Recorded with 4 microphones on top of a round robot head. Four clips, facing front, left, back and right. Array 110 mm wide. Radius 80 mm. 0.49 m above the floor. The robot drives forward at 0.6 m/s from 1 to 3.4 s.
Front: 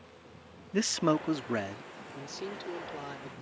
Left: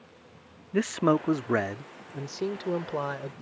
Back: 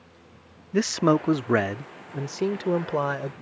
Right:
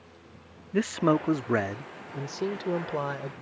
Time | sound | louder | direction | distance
0.7 | a man speaking | even, back 7 dB | 175° left | ?